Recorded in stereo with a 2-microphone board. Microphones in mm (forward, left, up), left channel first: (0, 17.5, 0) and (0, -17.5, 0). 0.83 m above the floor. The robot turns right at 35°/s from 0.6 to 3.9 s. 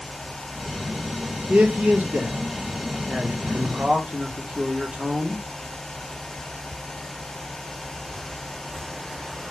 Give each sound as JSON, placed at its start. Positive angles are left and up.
{"t": 1.5, "sound": "a man speaking", "azimuth_deg": -125, "distance_m": 1.1}